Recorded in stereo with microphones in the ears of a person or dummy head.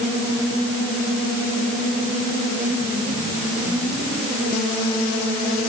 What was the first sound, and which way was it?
Only background noise.